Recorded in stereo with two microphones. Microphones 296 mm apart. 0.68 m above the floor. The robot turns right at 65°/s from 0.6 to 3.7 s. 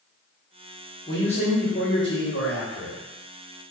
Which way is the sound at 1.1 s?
20° left.